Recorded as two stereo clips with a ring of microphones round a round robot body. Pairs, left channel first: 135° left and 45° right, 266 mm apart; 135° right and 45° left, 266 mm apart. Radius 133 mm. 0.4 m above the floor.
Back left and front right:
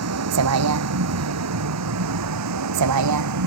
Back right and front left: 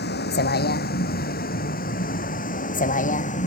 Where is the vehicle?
80° right; by 3.5 s 70° right.